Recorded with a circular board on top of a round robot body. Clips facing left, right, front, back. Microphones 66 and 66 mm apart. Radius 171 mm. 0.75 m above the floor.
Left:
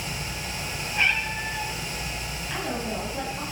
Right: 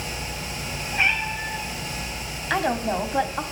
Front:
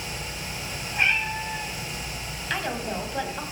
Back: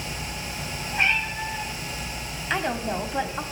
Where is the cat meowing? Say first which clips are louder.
Right 2 dB, even; 170° right, 5 m.